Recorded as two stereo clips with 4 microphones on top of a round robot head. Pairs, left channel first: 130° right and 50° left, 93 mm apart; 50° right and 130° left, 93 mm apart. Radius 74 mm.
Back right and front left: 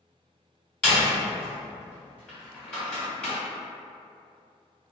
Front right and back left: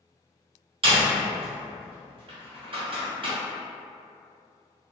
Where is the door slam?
150° left, 1.5 m.